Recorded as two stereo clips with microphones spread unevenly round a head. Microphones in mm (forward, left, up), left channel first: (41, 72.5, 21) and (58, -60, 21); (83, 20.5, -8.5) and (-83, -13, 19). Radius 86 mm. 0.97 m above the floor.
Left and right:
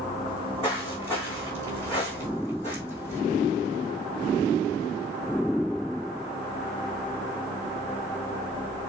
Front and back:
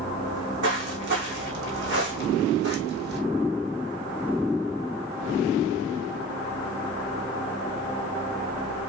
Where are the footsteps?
175° left, 3.5 m.